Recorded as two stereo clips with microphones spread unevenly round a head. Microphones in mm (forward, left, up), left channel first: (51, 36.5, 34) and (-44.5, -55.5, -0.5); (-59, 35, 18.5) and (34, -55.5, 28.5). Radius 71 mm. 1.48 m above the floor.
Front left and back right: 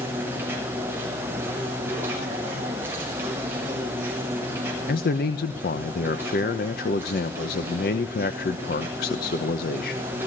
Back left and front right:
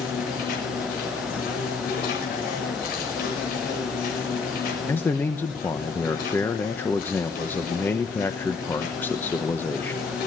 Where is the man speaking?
60° left, 1.0 m.